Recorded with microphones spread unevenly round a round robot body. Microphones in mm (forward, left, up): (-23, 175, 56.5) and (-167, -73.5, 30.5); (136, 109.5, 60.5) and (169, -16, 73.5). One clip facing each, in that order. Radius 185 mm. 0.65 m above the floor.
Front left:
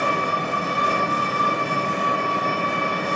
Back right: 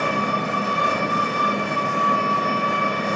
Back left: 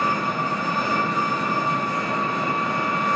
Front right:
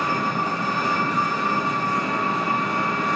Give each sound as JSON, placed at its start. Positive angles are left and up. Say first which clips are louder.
{"t": 0.0, "sound": "an engine running", "louder": "back right 1 dB, even", "azimuth_deg": -155, "distance_m": 1.4}